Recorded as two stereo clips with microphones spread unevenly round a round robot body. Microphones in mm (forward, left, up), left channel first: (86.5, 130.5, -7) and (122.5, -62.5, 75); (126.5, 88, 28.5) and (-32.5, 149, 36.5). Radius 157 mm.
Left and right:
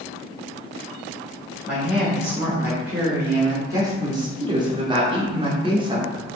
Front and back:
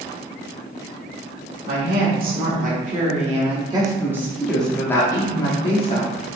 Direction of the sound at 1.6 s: Straight behind.